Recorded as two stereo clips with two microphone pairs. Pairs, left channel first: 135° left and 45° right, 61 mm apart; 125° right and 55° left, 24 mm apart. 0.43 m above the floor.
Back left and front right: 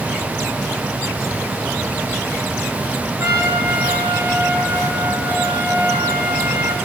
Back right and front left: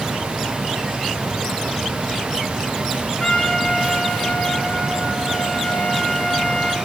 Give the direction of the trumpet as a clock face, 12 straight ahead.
2 o'clock.